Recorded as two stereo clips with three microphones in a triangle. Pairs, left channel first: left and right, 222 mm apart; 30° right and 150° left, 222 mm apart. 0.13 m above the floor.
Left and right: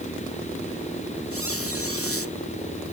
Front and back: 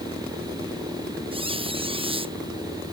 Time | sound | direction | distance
1.3 | a squeak | 85° left | ?